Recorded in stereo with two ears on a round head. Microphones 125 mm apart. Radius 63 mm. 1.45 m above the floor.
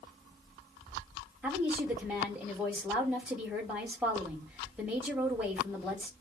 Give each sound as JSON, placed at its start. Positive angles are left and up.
{"t": 1.4, "sound": "a woman speaking", "side_deg": -10, "distance_m": 5.0}